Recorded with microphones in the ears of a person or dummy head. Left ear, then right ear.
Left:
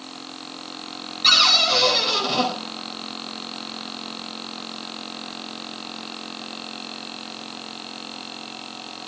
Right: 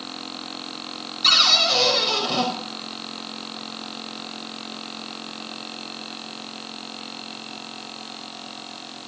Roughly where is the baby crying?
I don't hear a baby crying.